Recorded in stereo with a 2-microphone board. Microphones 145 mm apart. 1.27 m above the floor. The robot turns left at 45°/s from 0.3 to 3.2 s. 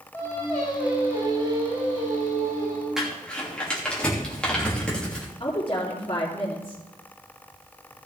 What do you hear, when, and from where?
0.1 s singing: 20° left, 6.5 m; by 2.9 s 95° right, 6.5 m
3.0 s crumpling: 5° right (ahead or behind), 3 m; by 5.3 s 5° left (ahead or behind), 3 m
5.4 s a woman speaking: 30° left (ahead or behind), 3.5 m